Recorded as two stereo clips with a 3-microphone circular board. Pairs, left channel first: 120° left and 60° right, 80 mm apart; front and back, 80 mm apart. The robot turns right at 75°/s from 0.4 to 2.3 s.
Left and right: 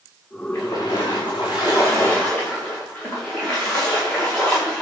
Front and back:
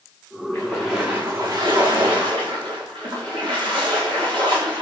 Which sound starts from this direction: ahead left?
A splash, at 0.5 s.